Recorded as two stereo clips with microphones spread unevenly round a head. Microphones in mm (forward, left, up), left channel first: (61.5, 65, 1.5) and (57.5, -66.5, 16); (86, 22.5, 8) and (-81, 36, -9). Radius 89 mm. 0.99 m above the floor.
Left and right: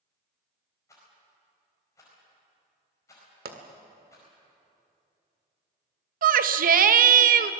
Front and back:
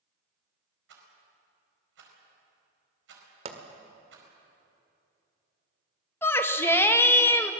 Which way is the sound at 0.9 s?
165° left.